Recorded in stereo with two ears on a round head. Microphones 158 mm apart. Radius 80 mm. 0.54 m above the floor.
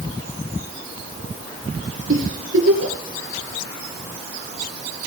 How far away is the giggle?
About 3.5 m.